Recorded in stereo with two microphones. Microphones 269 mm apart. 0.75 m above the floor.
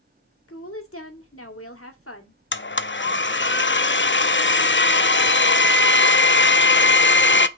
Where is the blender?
45° left (ahead or behind), 0.5 m.